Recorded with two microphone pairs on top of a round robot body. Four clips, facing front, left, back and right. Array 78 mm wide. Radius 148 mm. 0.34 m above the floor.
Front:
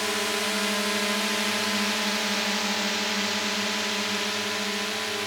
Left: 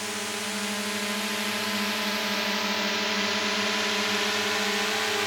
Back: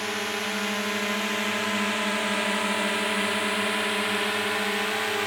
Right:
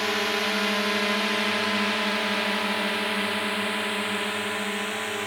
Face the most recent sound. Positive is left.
turn(degrees=150)